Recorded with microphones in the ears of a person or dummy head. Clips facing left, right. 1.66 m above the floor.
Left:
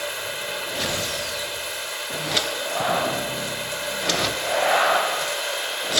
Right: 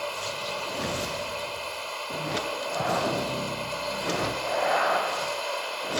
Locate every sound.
0.0 s running water: 20° left (ahead or behind)